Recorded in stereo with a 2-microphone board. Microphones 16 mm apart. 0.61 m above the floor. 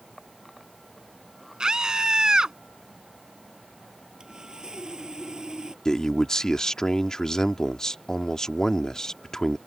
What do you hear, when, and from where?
1.6 s a scream: 55° right (ahead or behind)
4.2 s sawing: 55° right (ahead or behind)
5.8 s a man speaking: 40° left (ahead or behind)